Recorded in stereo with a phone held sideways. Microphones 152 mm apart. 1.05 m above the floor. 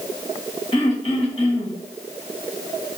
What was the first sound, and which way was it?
Throat clearing, 35° left (ahead or behind).